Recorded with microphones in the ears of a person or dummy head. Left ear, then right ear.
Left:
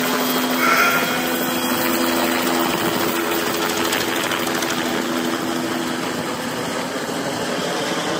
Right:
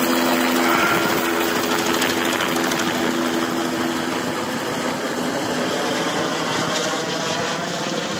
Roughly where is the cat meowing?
Left.